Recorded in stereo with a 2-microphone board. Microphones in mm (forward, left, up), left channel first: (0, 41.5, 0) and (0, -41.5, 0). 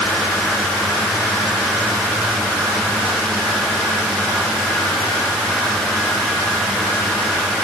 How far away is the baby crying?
I don't hear a baby crying.